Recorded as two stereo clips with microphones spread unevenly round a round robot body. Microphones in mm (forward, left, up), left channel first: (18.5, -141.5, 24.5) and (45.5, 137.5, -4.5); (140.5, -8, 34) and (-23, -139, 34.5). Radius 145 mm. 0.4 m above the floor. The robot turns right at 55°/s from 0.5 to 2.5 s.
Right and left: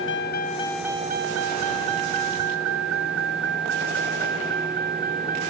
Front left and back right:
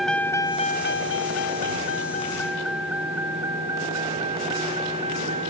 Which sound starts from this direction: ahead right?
A vehicle, at 0.0 s.